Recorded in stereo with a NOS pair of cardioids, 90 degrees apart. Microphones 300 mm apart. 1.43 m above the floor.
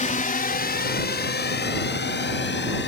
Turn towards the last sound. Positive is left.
turn(degrees=35)